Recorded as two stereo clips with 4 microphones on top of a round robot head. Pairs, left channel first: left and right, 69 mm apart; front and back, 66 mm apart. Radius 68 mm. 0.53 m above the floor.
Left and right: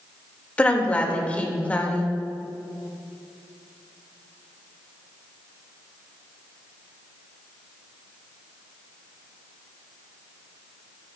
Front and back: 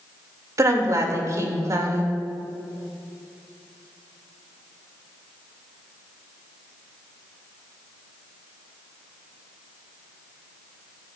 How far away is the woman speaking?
About 2.5 m.